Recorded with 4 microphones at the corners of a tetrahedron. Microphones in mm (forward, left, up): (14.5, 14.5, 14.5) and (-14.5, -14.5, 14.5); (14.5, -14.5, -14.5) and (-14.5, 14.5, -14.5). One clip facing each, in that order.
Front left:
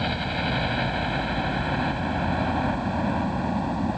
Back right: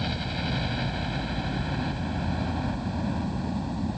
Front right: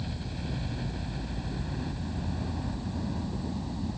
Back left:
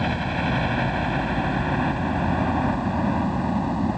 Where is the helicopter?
110° left; by 4.0 s 100° left.